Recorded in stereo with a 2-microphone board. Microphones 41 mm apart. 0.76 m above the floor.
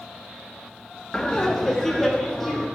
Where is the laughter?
15° left (ahead or behind), 0.6 m; by 2.7 s 5° left (ahead or behind), 1.7 m.